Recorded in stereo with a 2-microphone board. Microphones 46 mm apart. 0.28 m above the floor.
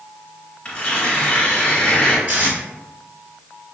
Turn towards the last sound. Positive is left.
turn(degrees=-40)  # may be behind; listen again after turning